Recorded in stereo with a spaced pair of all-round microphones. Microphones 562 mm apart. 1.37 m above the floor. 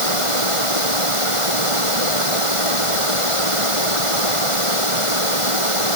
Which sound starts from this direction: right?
Running water, at 0.0 s.